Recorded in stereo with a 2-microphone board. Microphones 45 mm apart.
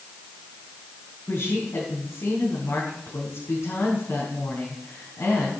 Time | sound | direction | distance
1.3 | a woman speaking | 70° left (ahead or behind) | 4.5 m